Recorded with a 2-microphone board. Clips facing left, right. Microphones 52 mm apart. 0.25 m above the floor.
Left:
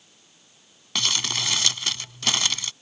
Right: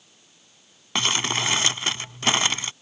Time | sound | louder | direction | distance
0.9 | crumpling | right 3 dB | 30° right (ahead or behind) | ?